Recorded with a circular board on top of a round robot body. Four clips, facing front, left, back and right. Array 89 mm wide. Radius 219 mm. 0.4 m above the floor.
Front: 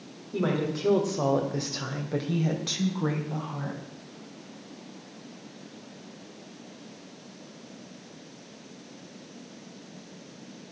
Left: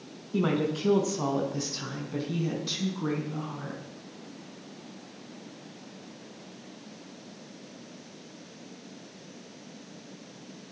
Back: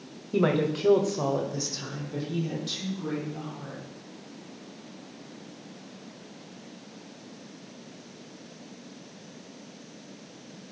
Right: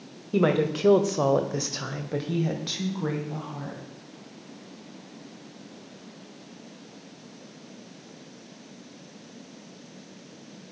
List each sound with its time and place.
0.3 s a woman speaking: 115° right, 2.5 m; by 3.8 s 35° right, 4.5 m